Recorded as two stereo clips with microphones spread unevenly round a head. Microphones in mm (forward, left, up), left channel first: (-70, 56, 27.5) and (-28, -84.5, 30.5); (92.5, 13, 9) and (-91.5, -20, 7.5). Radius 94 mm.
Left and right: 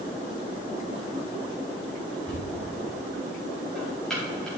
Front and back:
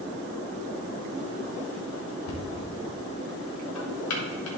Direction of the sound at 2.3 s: 20° left.